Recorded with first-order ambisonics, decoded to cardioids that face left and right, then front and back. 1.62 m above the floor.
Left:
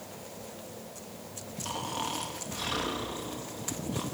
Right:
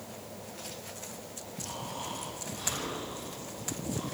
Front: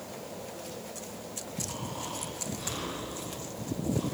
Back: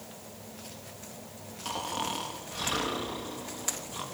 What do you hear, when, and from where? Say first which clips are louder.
1.6 s snoring: left 5 dB, back 10 dB; 145° left, 3 m